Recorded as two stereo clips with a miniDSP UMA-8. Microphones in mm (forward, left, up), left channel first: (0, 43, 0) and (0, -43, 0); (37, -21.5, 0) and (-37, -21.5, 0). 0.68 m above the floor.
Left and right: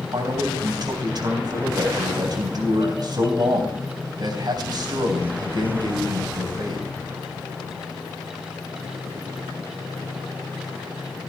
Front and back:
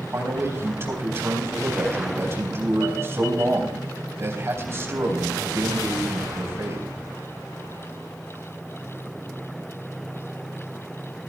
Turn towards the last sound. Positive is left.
turn(degrees=-125)